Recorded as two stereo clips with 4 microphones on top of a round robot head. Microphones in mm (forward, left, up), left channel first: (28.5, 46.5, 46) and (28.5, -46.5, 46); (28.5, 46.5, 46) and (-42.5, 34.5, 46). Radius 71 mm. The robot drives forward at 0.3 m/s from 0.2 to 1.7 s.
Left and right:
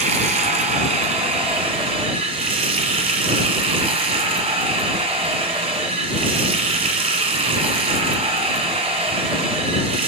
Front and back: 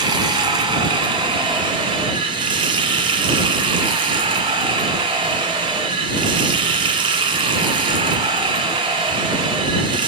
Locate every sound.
0.0 s running water: 120° right, 1.5 m; by 10.1 s 135° right, 1.7 m